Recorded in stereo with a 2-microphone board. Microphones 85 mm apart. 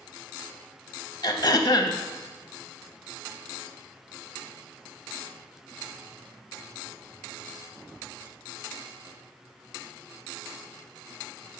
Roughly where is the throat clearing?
Left.